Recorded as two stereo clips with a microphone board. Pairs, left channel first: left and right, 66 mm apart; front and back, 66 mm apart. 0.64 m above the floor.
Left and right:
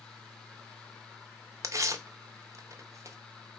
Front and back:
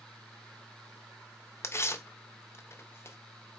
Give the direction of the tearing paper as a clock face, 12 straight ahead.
2 o'clock.